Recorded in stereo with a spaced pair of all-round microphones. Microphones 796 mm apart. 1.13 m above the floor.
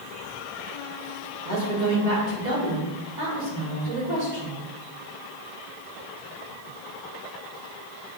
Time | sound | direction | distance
1.4 | a woman speaking | 60° right (ahead or behind) | 3 m